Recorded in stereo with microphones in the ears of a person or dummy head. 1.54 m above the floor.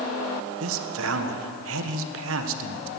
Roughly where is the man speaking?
Right.